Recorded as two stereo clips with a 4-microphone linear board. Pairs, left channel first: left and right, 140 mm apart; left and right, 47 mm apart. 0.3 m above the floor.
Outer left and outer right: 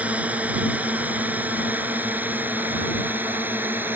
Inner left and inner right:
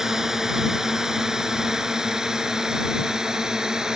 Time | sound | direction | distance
0.0 | a drone | 10° right (ahead or behind) | ?